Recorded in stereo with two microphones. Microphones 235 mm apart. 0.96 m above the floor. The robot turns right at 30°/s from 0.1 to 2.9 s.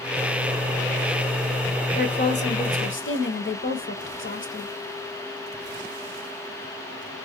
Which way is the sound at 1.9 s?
40° left (ahead or behind).